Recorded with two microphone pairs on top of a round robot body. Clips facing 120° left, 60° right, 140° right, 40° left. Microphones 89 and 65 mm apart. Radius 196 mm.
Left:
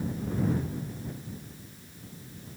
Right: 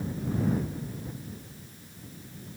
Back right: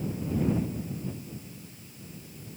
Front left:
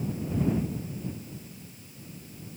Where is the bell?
No bell in this recording.